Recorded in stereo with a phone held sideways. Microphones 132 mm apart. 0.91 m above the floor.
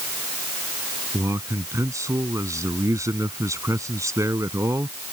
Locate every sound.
1.1 s a man speaking: 25° right (ahead or behind)